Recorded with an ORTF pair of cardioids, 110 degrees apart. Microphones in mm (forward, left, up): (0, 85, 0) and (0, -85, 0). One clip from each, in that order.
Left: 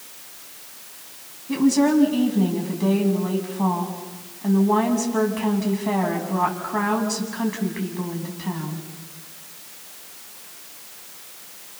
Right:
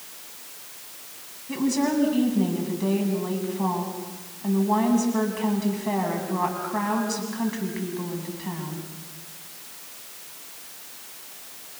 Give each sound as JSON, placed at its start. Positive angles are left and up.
{"t": 1.5, "sound": "a woman speaking", "azimuth_deg": 15, "distance_m": 7.5}